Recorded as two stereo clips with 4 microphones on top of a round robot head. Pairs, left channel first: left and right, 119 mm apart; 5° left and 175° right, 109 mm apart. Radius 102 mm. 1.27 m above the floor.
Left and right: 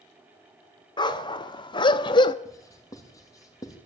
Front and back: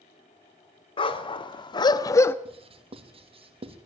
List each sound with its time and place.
1.0 s a dog barking: 40° left, 1.9 m; by 2.4 s 65° left, 0.8 m
2.5 s writing: 155° left, 3 m